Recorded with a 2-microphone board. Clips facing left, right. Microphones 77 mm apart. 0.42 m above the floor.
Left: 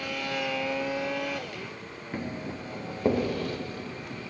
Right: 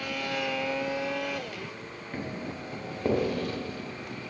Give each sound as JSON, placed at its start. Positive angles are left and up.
{"t": 2.1, "sound": "footsteps", "side_deg": 5, "distance_m": 4.0}